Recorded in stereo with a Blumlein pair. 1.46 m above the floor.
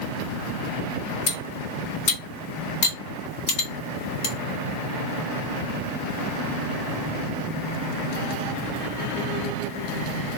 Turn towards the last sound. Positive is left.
turn(degrees=50)